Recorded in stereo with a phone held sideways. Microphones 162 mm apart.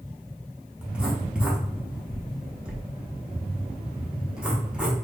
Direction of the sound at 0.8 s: 5° right (ahead or behind).